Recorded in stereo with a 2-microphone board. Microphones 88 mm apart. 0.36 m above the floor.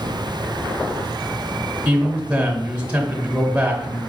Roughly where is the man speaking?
Centre.